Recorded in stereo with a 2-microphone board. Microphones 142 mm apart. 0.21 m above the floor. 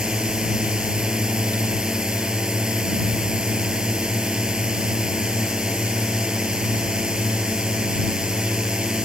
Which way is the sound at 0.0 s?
5° right (ahead or behind).